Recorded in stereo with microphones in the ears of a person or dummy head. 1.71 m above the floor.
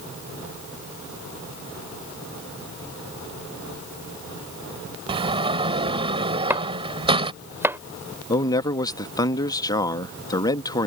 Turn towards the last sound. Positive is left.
turn(degrees=25)  # may be behind; listen again after turning